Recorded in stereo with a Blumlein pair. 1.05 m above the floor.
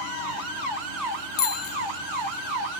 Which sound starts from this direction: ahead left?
A bicycle bell, at 1.4 s.